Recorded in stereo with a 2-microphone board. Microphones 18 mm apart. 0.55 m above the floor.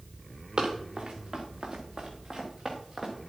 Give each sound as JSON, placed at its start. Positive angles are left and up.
{"t": 0.6, "sound": "running footsteps", "side_deg": -45, "distance_m": 2.5}